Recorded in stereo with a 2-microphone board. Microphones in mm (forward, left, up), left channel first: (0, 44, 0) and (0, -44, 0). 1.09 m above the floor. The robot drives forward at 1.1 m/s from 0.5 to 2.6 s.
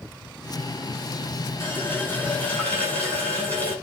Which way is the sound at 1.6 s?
25° left (ahead or behind).